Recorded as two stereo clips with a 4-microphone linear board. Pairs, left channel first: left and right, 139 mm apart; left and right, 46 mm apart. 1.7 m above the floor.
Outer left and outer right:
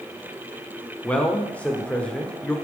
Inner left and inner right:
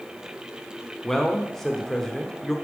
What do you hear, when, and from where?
1.0 s a man speaking: 10° left (ahead or behind), 1.0 m